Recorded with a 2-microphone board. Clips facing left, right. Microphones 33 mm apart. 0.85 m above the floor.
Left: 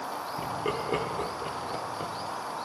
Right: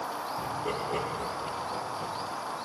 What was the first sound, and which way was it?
Laughter, 35° left (ahead or behind).